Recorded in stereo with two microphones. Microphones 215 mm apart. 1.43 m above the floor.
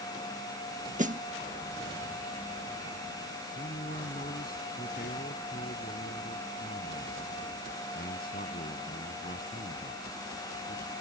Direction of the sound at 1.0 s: 35° right (ahead or behind).